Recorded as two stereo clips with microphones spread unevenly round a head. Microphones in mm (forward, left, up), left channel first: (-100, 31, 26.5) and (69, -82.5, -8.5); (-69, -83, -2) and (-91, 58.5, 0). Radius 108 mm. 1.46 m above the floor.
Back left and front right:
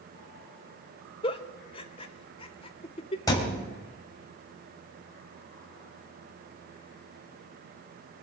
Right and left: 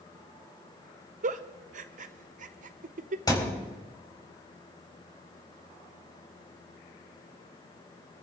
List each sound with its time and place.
1.2 s a giggle: 95° left, 0.6 m
3.3 s a thud: 145° right, 4 m